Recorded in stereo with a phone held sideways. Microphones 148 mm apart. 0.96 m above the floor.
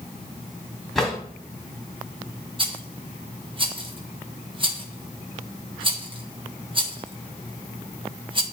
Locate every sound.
0.9 s a drawer: centre (ahead or behind), 1.6 m
2.6 s a rattle: 35° right (ahead or behind), 0.8 m